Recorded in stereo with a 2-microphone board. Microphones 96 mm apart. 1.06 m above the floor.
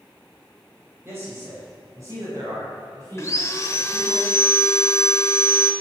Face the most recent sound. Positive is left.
turn(degrees=30)  # may be behind; listen again after turning